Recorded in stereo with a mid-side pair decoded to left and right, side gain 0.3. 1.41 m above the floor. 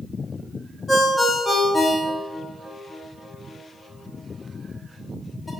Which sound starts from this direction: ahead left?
A ringtone, at 0.9 s.